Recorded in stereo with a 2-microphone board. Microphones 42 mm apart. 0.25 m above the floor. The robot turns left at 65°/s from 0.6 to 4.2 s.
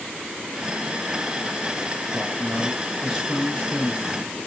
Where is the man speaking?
105° right, 5.5 m; by 4.4 s 120° left, 5.5 m.